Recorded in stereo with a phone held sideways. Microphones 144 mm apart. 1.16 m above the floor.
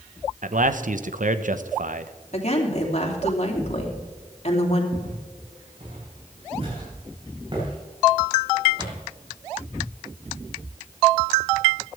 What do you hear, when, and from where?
0.4 s a man speaking: 65° right (ahead or behind), 0.9 m
2.3 s a woman speaking: 50° left (ahead or behind), 3 m
4.9 s footsteps: 55° right (ahead or behind), 5.5 m; by 9.0 s 30° right (ahead or behind), 9 m